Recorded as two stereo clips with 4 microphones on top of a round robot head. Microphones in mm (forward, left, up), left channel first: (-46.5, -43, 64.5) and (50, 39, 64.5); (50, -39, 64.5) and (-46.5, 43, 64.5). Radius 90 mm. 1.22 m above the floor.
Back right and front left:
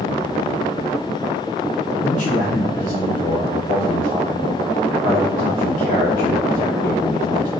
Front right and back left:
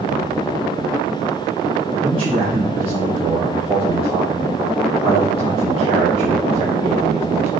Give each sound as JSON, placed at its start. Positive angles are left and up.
{"t": 2.0, "sound": "a man speaking", "azimuth_deg": -170, "distance_m": 0.8}